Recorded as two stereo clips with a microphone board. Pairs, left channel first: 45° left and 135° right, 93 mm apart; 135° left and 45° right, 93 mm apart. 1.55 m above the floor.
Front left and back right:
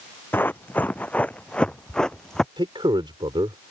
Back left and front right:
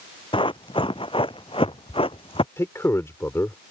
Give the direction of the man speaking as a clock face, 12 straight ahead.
5 o'clock.